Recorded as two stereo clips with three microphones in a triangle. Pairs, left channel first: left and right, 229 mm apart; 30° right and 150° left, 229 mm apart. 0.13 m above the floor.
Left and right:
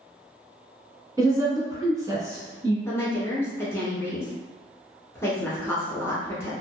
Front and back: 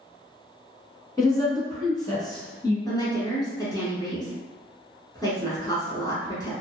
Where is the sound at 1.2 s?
55° right, 1.0 m.